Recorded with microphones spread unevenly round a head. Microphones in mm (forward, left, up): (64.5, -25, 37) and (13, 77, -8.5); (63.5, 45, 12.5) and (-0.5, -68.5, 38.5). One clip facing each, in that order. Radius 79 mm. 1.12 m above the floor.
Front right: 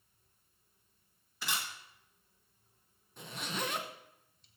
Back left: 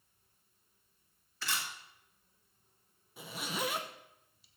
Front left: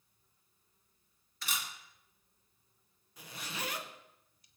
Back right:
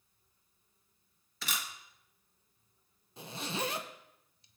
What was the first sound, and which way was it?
A camera shutter, 150° right.